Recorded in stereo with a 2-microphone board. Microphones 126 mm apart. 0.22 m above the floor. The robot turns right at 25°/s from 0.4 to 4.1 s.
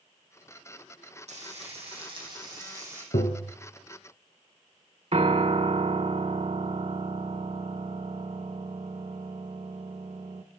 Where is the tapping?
65° left (ahead or behind), 1.2 m; by 3.5 s 70° left (ahead or behind), 1.2 m.